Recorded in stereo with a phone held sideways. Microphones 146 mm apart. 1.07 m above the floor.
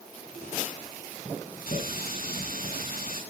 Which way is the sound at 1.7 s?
85° left.